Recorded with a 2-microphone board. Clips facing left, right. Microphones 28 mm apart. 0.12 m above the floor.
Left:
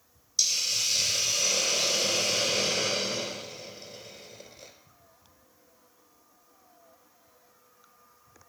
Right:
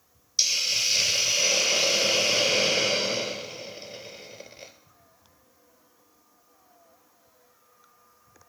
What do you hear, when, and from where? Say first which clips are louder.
0.4 s a hiss: right 3 dB; 35° right (ahead or behind), 0.8 m